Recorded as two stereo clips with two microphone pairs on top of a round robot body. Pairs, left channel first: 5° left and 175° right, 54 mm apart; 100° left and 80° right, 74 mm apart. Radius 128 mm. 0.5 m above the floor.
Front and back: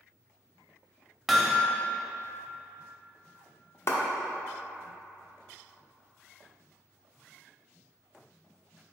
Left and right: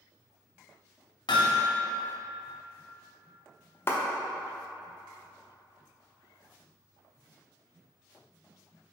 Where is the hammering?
105° left, 0.7 m.